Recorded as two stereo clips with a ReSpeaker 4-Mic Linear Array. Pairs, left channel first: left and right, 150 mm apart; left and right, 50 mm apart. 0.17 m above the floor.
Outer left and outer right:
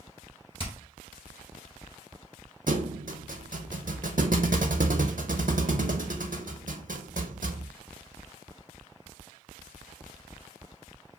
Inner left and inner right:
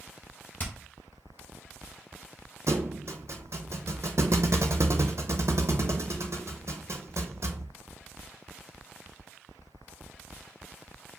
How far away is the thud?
About 0.7 m.